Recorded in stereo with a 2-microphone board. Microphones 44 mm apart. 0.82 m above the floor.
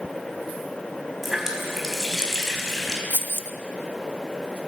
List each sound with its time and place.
1.2 s a running tap: 10° right (ahead or behind), 4 m
3.1 s keys jangling: 50° right (ahead or behind), 0.7 m